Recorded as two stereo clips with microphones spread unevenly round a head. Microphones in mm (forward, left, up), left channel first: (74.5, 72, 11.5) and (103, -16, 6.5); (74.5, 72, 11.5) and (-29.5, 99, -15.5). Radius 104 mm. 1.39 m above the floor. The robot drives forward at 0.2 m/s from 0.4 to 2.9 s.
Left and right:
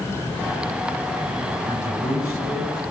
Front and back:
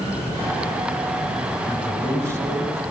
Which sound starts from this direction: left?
A man speaking, at 1.7 s.